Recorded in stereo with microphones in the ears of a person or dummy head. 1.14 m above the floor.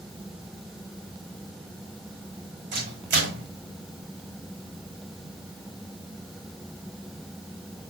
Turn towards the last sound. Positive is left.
turn(degrees=-50)  # may be behind; listen again after turning